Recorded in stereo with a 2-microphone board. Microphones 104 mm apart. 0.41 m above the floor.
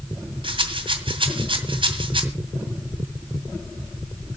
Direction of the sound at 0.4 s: 55° right (ahead or behind).